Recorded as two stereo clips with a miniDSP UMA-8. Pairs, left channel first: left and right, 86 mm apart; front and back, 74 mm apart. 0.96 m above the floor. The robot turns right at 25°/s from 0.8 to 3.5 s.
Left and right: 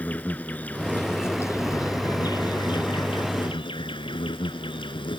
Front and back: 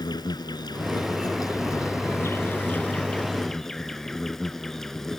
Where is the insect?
15° left; by 5.2 s 85° left.